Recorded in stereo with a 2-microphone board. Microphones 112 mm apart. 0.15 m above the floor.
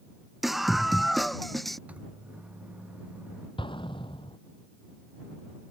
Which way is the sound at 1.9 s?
15° right (ahead or behind).